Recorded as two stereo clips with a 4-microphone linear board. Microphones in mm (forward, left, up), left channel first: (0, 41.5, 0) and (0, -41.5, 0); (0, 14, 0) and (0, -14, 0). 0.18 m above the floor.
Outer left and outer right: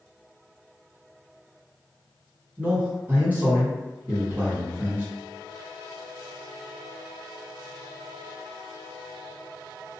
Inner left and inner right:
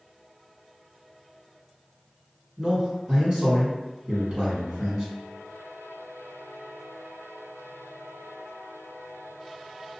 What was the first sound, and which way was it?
A man speaking, 20° right (ahead or behind).